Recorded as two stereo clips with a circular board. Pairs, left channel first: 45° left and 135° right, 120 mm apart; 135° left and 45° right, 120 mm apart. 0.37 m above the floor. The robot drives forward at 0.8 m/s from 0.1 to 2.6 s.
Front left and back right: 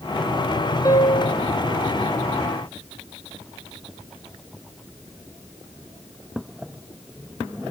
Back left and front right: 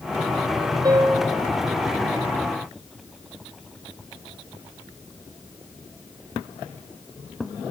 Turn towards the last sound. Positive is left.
turn(degrees=-110)